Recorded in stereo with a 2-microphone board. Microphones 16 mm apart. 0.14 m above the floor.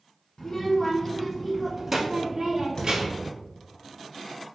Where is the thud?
60° left (ahead or behind), 1.6 m.